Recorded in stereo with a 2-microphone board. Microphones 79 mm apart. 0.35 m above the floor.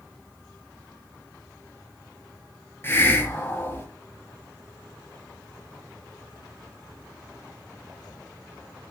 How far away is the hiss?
About 2.0 m.